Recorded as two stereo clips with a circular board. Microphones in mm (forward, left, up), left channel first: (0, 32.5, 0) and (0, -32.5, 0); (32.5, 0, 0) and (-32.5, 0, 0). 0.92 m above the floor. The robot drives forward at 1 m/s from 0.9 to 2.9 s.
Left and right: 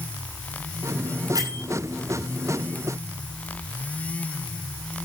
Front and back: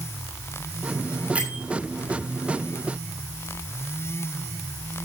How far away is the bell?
About 6.5 m.